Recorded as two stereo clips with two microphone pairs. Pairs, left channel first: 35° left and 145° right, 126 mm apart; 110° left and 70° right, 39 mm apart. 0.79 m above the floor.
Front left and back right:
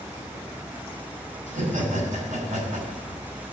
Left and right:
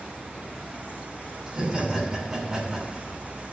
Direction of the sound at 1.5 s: 150° right.